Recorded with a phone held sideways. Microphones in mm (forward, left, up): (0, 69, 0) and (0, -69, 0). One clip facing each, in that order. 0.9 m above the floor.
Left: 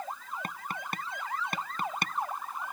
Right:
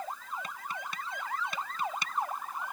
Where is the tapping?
55° left (ahead or behind).